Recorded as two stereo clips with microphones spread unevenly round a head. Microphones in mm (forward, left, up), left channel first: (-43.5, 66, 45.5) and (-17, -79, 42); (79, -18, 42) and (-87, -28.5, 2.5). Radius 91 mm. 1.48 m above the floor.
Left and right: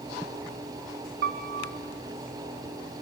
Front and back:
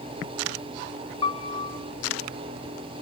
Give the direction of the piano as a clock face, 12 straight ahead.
2 o'clock.